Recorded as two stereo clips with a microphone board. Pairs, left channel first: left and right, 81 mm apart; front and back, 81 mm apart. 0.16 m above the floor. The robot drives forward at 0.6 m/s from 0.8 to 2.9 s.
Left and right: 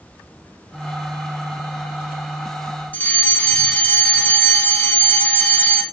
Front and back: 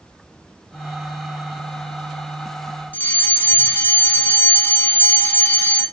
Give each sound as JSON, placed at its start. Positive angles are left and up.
{"t": 2.9, "sound": "a fire alarm", "azimuth_deg": 45, "distance_m": 2.5}